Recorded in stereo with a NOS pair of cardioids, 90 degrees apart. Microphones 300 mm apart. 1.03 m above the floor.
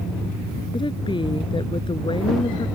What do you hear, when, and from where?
0.7 s a woman speaking: 15° left